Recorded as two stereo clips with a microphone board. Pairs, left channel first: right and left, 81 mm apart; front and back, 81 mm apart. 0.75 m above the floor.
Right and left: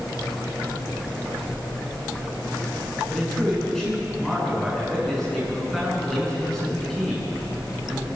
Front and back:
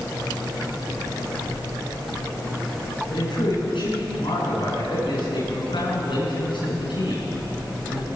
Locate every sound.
3.1 s a man speaking: 5° right, 9.5 m